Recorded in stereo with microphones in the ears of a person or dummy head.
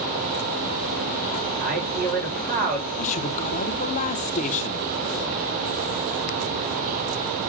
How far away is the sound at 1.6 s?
About 6.5 m.